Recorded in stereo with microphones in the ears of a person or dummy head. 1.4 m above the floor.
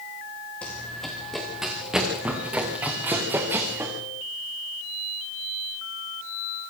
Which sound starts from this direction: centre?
Running footsteps, at 0.6 s.